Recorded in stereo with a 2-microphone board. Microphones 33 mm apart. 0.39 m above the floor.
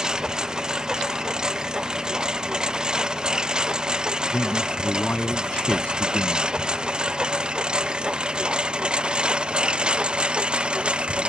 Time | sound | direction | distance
0.0 | a lawn mower | 20° right (ahead or behind) | ?
4.3 | a man speaking | 50° left (ahead or behind) | ?